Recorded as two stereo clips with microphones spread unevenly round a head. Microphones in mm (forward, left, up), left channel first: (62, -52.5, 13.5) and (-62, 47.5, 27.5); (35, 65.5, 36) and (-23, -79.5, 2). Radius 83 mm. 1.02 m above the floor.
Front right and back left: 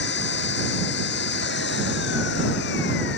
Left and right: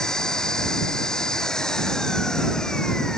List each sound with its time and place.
0.0 s an engine running: 20° right